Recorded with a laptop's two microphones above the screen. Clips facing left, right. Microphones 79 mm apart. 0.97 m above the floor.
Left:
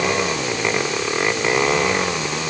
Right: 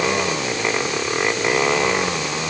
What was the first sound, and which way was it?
Only background noise.